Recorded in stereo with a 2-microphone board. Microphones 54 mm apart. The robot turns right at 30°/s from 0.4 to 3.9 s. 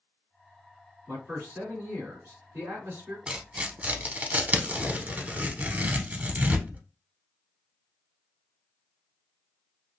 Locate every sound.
1.1 s a man speaking: 150° right, 2 m; by 3.2 s 85° right, 2 m
3.3 s tearing paper: 20° right (ahead or behind), 0.5 m; by 6.8 s 30° right (ahead or behind), 0.5 m